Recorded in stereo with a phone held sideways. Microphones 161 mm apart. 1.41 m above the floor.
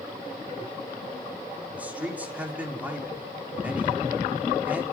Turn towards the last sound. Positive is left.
turn(degrees=-10)  # may be behind; listen again after turning